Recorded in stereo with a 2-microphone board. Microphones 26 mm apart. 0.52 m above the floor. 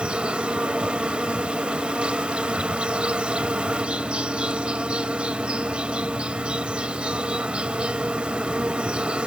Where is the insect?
55° right (ahead or behind).